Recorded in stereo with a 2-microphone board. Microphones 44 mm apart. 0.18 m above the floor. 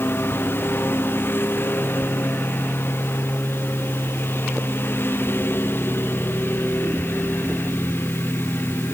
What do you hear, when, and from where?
0.0 s a lawn mower: 55° left (ahead or behind)